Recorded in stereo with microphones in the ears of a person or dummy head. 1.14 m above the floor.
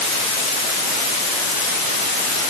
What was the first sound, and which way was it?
Only background noise.